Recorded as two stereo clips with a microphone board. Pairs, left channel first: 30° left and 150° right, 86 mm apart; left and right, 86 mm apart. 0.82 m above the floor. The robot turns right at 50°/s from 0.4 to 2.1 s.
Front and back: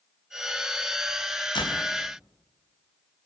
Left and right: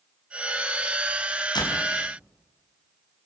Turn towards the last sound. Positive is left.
turn(degrees=80)